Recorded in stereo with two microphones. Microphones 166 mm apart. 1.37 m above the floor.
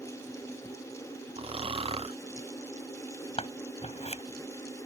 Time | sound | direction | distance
1.4 | snoring | 35° right (ahead or behind) | ?
3.4 | scissors | 40° left (ahead or behind) | ?